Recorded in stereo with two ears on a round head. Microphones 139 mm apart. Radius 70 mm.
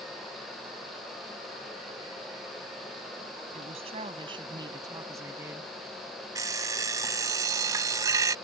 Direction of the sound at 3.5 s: 45° right (ahead or behind).